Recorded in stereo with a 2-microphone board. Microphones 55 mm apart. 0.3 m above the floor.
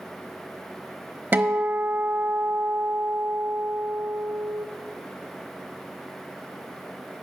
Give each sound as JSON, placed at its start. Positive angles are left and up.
{"t": 1.3, "sound": "a guitar", "side_deg": -35, "distance_m": 0.7}